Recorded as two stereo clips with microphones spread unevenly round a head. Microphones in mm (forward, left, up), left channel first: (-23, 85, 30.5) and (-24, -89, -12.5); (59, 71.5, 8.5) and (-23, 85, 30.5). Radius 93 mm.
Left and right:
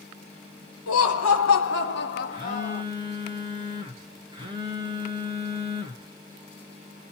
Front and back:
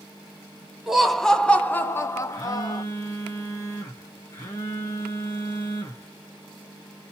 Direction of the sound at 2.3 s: 30° right.